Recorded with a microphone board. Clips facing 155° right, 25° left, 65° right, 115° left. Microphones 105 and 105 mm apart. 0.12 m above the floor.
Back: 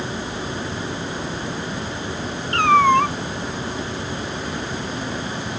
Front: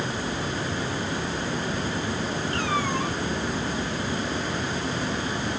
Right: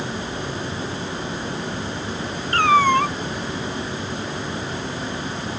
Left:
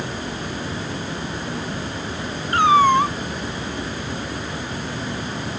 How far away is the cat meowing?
About 0.8 m.